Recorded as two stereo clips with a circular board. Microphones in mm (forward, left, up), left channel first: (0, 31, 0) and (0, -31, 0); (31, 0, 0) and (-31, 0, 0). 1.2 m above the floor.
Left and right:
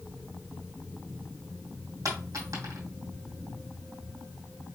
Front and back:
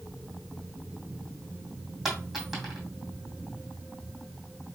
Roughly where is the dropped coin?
Right.